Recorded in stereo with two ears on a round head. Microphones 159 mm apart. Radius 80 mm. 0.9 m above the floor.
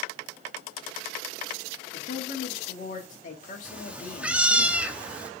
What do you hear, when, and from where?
1.9 s a woman speaking: 45° left (ahead or behind), 2 m
3.6 s a cat meowing: 10° right (ahead or behind), 0.6 m